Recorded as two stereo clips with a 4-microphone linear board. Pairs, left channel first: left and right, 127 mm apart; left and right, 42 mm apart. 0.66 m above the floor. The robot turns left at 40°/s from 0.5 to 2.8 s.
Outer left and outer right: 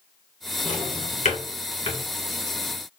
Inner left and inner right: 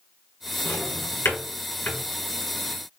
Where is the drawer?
80° left, 1.9 m; by 2.0 s 45° left (ahead or behind), 1.9 m.